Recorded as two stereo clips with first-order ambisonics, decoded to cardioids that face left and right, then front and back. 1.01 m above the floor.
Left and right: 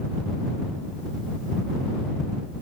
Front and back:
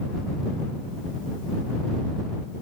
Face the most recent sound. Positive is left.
No sound to turn to.